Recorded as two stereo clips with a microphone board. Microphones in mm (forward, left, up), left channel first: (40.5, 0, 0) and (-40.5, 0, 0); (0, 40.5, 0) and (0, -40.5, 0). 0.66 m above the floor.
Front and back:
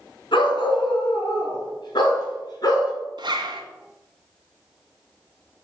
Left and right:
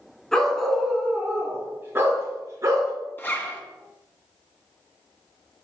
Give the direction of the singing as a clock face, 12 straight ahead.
No singing in this recording.